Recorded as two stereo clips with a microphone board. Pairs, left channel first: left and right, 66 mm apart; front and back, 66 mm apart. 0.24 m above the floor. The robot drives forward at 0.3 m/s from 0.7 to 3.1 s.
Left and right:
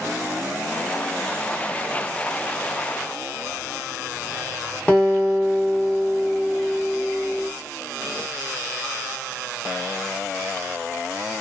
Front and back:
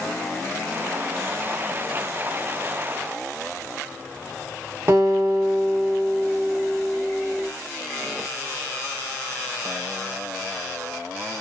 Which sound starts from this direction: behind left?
A guitar, at 4.9 s.